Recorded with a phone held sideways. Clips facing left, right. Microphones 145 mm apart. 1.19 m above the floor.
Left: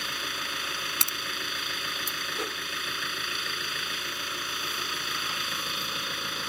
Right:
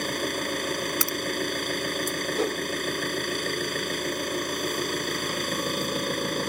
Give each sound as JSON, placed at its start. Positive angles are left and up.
{"t": 0.0, "sound": "an engine running", "side_deg": -50}
{"t": 1.0, "sound": "a crack", "side_deg": 25}
{"t": 2.4, "sound": "a whoosh", "side_deg": -45}